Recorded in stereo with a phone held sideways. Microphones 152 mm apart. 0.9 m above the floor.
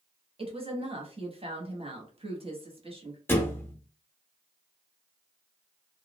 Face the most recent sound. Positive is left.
turn(degrees=15)  # may be behind; listen again after turning